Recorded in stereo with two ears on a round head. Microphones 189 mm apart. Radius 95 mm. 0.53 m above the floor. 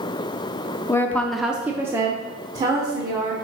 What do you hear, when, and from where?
0.9 s a woman speaking: 15° left (ahead or behind), 0.6 m; by 3.4 s 20° right (ahead or behind), 1.6 m